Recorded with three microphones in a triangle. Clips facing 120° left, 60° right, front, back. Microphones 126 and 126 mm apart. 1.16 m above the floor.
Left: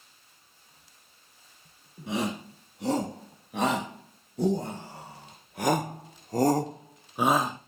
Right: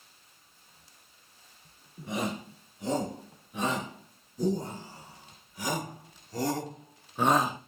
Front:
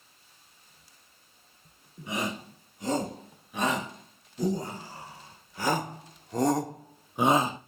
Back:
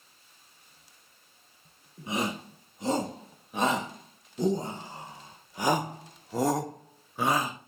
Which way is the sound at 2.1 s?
120° left.